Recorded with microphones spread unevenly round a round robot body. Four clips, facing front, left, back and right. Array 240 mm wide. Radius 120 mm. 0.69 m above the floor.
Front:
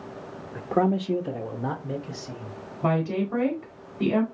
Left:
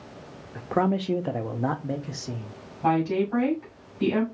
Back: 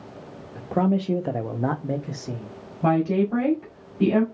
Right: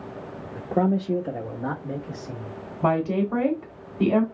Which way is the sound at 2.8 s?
110° right.